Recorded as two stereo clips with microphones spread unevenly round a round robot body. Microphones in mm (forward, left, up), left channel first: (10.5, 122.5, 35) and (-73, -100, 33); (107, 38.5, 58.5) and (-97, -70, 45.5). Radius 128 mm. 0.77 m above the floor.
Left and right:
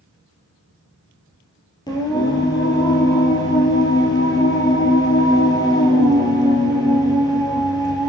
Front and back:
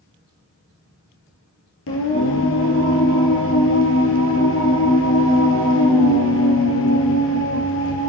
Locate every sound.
1.9 s singing: 5° right, 3 m